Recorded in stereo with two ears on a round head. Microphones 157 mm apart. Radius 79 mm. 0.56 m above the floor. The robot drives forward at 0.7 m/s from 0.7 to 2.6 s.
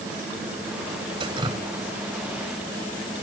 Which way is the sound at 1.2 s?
30° right (ahead or behind).